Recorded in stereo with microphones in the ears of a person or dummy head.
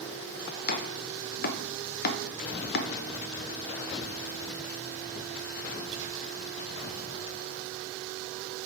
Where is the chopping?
50° left (ahead or behind), 0.7 m.